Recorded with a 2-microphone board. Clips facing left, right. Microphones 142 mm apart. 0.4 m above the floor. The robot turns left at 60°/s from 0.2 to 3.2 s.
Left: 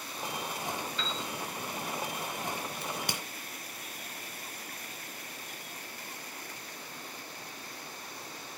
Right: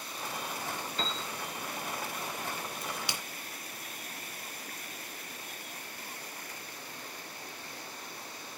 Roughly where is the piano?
Right.